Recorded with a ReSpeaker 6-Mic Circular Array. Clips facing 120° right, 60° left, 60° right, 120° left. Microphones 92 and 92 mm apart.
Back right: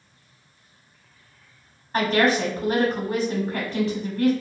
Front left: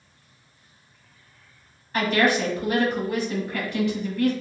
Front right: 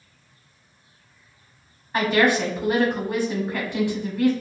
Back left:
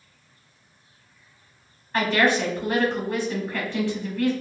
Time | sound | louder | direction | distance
1.9 | a woman speaking | back right 1 dB, front right 2 dB | 125° right | 1.2 m